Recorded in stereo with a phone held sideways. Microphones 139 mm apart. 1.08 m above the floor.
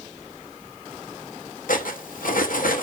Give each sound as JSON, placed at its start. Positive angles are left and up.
{"t": 1.7, "sound": "cutlery clinking", "side_deg": 75, "distance_m": 0.7}